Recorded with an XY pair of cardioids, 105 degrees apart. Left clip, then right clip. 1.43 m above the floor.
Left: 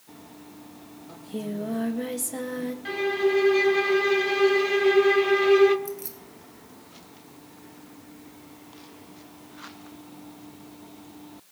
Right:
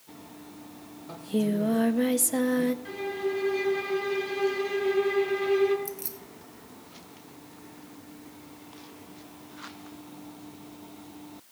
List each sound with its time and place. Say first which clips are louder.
1.1 s singing: right 6 dB; 40° right, 1.2 m
2.9 s a violin: left 7 dB; 60° left, 1.9 m
5.8 s keys jangling: left 3 dB; 15° right, 1.2 m